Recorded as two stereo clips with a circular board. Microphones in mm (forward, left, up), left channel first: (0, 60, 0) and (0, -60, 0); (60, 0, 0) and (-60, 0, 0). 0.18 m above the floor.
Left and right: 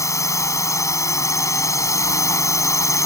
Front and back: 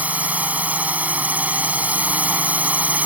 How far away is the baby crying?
No baby crying in this recording.